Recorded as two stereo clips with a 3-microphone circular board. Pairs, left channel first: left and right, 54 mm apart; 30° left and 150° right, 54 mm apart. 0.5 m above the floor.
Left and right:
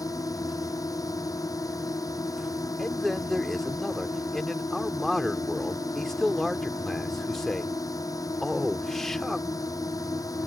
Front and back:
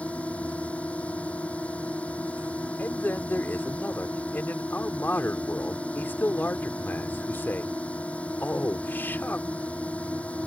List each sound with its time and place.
0.0 s a drone: 95° left
2.8 s a man speaking: 10° left